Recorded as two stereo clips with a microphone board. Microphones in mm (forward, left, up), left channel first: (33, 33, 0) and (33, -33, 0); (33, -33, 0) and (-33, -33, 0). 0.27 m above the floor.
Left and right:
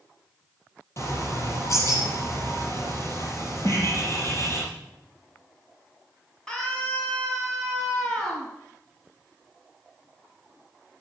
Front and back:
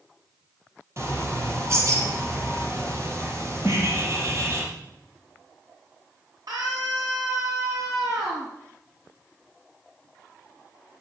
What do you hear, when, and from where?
1.0 s a bird: 135° left, 4.5 m
3.6 s a snare drum: 75° left, 3.5 m
6.5 s a scream: 170° left, 8 m